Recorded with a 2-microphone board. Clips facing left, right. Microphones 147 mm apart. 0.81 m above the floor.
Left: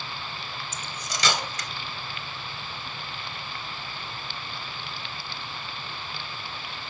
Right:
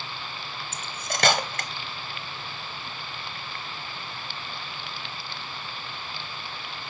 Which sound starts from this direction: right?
Cutlery clinking, at 0.7 s.